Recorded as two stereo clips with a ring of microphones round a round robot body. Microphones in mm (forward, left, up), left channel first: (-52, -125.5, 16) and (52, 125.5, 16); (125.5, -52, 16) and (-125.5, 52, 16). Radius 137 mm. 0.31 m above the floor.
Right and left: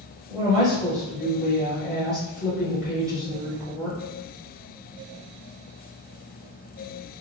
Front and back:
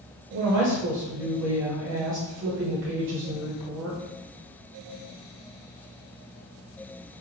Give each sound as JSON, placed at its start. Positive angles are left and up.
{"t": 0.3, "sound": "a woman speaking", "azimuth_deg": 160, "distance_m": 1.1}